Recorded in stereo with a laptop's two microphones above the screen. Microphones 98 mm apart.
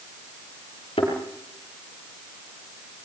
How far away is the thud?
About 6.5 m.